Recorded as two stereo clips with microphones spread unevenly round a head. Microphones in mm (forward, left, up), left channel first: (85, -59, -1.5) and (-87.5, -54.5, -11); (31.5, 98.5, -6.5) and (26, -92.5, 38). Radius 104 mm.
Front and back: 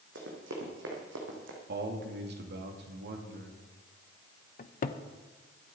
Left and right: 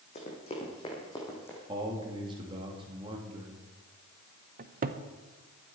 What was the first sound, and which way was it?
Running footsteps, 150° left.